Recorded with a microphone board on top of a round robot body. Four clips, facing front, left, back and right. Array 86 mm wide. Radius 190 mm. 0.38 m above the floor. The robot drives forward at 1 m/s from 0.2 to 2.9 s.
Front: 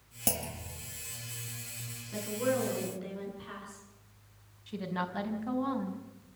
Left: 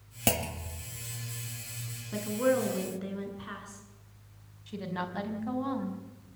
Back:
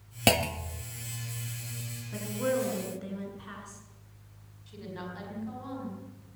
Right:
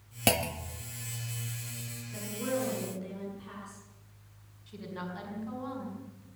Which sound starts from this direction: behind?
A clunk, at 0.3 s.